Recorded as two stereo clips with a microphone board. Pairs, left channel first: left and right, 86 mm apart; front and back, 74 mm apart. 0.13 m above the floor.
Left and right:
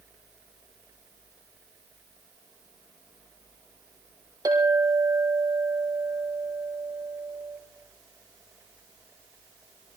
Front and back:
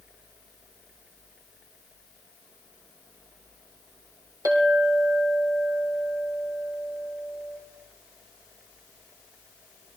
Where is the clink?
135° right, 4 m.